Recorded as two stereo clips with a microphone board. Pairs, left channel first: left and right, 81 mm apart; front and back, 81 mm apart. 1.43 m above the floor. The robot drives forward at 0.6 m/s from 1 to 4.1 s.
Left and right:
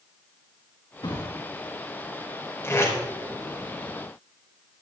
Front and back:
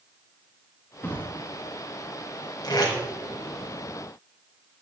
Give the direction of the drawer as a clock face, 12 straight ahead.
10 o'clock.